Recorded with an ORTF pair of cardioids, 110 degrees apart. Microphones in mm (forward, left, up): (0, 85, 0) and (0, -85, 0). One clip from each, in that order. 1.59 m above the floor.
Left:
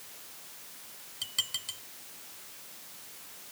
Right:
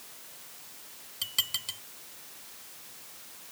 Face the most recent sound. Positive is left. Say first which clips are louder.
# right 2 dB
turn(degrees=-25)